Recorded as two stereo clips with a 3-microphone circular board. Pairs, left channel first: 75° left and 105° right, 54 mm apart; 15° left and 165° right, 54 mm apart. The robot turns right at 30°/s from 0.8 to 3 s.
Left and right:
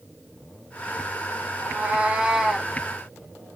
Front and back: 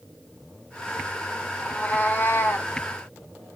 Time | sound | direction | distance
1.6 | a cat meowing | 55° right | 0.8 m